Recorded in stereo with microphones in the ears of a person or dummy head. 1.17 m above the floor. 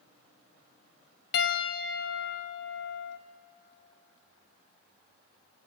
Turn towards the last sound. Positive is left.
turn(degrees=60)  # may be behind; listen again after turning